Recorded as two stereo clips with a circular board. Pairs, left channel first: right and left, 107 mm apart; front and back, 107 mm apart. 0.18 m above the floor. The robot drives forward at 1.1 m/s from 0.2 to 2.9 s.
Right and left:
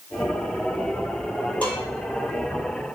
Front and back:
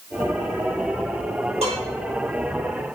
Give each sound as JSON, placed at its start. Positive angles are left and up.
{"t": 1.6, "sound": "dishes clattering", "azimuth_deg": -165, "distance_m": 3.5}